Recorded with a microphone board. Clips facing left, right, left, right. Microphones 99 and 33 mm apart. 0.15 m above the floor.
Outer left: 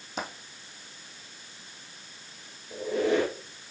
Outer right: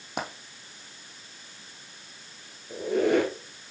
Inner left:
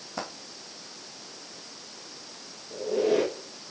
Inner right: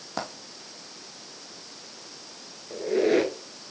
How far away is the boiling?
I don't hear boiling.